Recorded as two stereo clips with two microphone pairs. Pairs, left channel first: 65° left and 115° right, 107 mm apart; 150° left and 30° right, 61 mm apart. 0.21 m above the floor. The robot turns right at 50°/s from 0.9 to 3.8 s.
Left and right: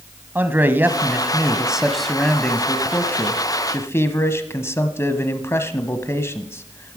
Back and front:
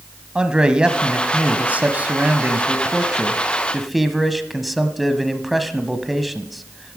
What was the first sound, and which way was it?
A man speaking, 85° right.